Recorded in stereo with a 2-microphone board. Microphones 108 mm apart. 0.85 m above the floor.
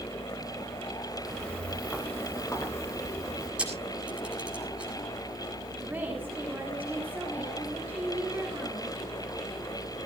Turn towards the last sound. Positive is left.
turn(degrees=-15)  # may be behind; listen again after turning